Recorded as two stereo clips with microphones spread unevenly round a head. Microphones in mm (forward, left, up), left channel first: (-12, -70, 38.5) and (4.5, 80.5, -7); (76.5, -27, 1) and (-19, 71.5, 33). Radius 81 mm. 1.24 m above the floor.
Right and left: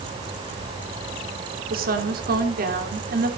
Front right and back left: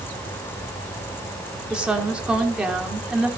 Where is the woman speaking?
50° left, 3 m.